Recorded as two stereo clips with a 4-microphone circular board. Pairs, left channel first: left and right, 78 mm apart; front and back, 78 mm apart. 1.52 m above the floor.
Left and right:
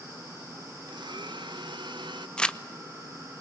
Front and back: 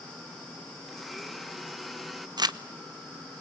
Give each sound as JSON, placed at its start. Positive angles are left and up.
{"t": 0.9, "sound": "a blender", "azimuth_deg": -90, "distance_m": 1.3}
{"t": 2.4, "sound": "crumpling", "azimuth_deg": 165, "distance_m": 1.0}